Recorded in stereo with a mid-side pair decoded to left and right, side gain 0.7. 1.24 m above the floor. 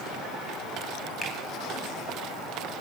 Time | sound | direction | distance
1.2 | a finger snap | 20° left | 8 m